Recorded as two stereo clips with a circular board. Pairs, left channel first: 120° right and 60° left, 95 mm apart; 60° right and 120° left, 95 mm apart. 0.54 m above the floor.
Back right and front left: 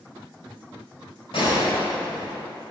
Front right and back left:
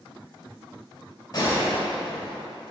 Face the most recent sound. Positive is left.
turn(degrees=-100)